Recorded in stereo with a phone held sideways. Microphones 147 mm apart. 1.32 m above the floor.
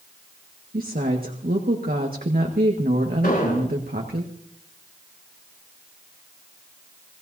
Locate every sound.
0.7 s a woman speaking: 90° right, 1.7 m
3.2 s an explosion: 80° left, 5.5 m